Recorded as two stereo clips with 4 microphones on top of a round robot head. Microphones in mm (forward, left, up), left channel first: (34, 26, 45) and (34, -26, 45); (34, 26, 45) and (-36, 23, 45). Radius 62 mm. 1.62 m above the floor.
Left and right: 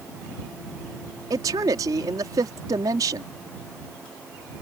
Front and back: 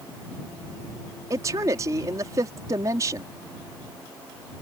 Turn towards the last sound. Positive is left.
turn(degrees=-120)